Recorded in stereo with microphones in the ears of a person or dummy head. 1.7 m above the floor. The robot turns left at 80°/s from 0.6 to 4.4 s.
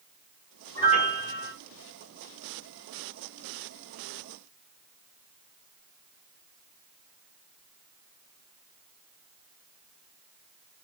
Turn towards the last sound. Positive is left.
turn(degrees=-135)